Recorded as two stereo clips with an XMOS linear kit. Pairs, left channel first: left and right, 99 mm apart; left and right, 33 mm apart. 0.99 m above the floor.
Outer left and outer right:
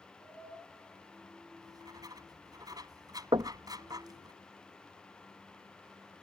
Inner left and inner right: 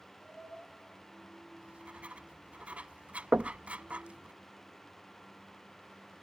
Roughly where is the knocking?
Right.